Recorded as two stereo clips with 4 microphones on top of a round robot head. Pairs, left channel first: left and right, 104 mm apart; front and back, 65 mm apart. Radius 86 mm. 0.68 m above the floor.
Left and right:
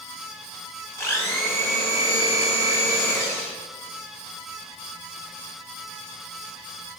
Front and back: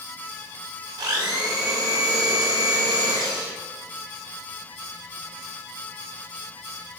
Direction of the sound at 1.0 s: 155° left.